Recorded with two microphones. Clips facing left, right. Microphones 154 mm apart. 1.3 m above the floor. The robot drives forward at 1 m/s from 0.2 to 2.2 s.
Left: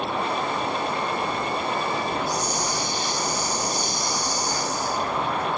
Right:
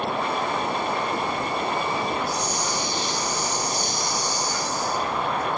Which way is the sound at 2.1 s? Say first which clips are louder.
Even; 40° left (ahead or behind).